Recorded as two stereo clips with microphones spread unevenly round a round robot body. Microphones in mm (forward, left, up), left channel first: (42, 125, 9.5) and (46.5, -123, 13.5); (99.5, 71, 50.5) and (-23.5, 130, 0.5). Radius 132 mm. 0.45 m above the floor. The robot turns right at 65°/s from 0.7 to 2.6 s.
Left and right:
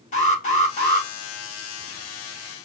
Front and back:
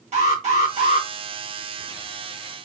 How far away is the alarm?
About 3.5 m.